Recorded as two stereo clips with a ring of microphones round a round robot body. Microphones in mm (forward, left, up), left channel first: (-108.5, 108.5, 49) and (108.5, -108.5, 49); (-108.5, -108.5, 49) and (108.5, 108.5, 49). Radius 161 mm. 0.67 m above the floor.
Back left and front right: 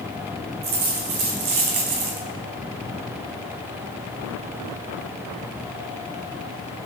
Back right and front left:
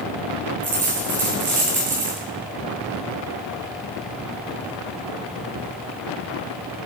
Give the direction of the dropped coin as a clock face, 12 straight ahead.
1 o'clock.